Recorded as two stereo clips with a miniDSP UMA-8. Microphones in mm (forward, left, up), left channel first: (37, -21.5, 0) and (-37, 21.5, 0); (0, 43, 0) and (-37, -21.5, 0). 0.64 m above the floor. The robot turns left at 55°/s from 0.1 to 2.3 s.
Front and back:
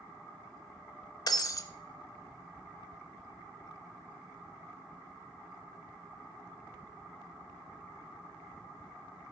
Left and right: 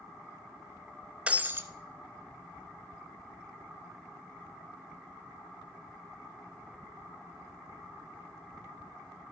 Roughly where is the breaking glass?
Ahead right.